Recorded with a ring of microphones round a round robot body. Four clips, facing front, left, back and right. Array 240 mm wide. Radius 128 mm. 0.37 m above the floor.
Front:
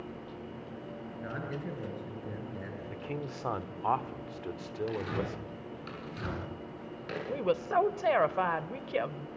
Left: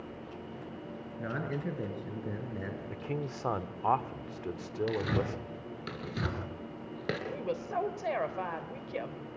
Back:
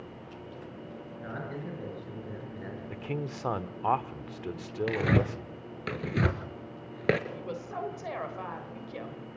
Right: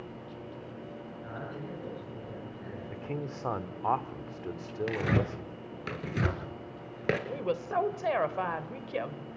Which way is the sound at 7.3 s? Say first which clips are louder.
Right 3 dB, front 9 dB; 20° right.